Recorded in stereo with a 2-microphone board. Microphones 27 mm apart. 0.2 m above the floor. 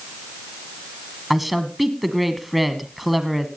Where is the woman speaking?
5° right (ahead or behind), 1.3 m.